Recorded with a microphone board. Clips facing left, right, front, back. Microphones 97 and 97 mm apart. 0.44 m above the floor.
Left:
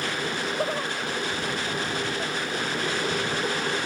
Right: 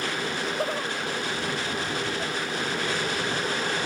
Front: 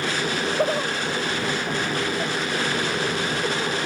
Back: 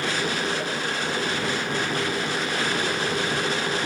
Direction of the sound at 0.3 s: 5° left.